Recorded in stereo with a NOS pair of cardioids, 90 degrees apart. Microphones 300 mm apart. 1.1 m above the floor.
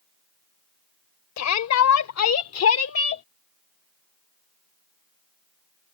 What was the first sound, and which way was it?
A shout, 65° left.